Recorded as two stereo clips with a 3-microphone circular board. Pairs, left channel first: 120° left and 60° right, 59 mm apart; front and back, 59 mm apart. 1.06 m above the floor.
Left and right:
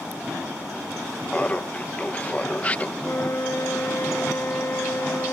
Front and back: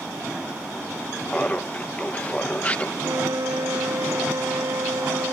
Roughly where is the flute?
Behind.